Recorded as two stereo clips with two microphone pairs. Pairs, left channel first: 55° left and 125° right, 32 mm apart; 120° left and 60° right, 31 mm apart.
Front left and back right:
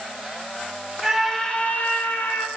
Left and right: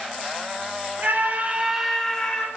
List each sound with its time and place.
1.0 s a scream: 35° right, 1.5 m; by 2.5 s 60° left, 1.7 m